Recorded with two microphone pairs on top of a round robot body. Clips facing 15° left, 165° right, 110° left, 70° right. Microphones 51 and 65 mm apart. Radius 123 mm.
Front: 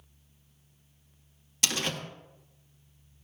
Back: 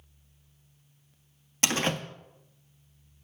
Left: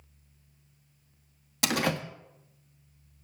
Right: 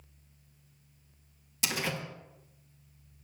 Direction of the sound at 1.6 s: 135° left.